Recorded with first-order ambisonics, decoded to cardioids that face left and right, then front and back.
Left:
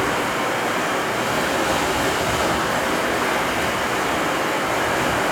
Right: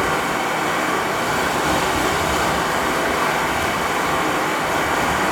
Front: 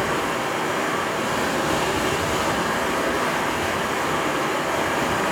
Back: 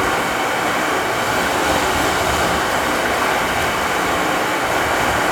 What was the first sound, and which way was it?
Running water, straight behind.